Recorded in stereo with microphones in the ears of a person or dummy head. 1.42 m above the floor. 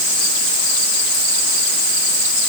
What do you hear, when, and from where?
Only background noise.